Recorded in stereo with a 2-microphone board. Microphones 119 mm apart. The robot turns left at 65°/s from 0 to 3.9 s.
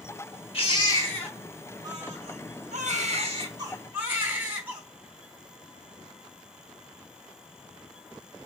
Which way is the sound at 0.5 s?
55° left.